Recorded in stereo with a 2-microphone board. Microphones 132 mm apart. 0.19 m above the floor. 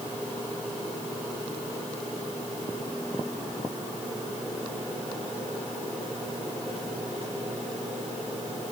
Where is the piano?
I don't hear a piano.